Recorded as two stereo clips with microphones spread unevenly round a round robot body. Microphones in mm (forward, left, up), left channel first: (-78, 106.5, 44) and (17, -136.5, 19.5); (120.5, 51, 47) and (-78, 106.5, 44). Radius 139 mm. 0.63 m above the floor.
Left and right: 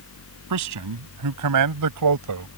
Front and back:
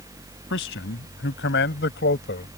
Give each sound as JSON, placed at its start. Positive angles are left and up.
{"t": 0.5, "sound": "a man speaking", "azimuth_deg": -60}